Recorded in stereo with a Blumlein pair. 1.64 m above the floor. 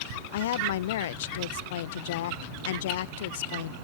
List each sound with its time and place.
0.3 s a woman speaking: 55° left